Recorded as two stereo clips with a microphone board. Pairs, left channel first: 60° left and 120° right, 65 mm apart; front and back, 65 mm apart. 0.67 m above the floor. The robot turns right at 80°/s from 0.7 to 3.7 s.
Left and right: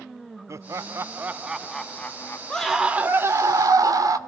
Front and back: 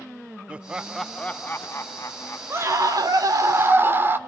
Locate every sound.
0.5 s laughter: 110° right, 0.7 m; by 3.3 s 100° left, 0.7 m
2.5 s a scream: 135° left, 2 m; by 4.2 s 130° right, 2 m